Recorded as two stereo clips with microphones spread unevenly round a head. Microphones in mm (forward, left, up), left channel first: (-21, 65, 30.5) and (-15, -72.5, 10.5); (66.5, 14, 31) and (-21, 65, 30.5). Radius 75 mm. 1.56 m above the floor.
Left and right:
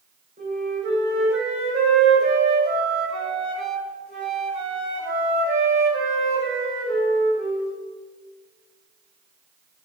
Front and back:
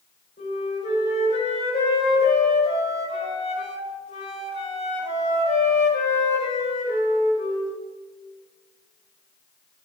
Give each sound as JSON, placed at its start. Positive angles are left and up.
{"t": 0.4, "sound": "a flute", "azimuth_deg": -40, "distance_m": 5.5}